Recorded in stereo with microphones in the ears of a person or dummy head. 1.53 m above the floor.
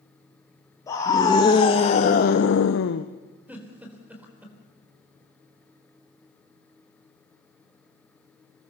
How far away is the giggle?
About 4 m.